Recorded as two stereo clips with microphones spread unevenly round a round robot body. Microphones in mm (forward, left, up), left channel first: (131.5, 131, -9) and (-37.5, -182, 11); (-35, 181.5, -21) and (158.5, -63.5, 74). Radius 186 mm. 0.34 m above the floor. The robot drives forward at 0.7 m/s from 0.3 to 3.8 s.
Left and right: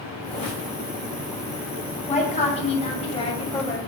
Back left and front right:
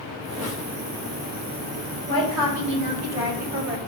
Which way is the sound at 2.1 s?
5° right.